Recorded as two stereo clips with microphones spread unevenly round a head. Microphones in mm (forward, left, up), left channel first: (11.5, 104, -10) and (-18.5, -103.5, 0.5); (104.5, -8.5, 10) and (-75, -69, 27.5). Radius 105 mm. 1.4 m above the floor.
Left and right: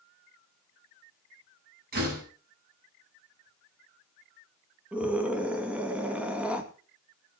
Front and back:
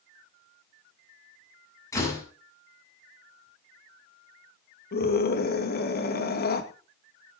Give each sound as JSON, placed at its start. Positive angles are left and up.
{"t": 1.9, "sound": "a door slam", "azimuth_deg": -55, "distance_m": 7.0}
{"t": 4.9, "sound": "a scream", "azimuth_deg": -15, "distance_m": 2.5}